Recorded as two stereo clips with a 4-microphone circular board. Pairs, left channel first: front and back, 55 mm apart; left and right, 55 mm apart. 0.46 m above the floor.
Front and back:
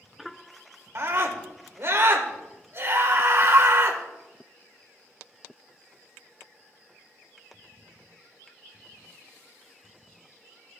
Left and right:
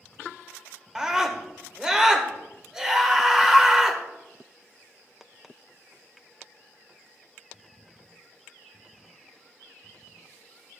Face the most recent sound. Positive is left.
turn(degrees=-165)